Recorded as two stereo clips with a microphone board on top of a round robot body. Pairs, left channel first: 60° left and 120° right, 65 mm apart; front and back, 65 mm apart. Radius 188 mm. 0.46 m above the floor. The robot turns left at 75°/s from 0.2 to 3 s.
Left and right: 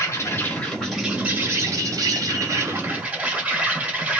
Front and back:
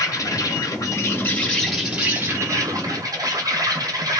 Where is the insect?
25° left, 1.3 m; by 4.2 s 175° left, 1.3 m.